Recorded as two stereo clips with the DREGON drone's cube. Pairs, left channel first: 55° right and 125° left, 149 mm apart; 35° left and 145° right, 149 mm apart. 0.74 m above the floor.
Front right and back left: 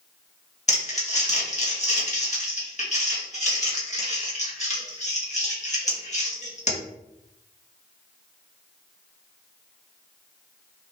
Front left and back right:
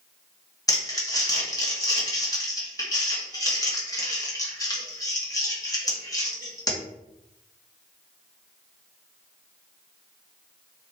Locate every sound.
0.7 s crumpling: 25° right, 1.4 m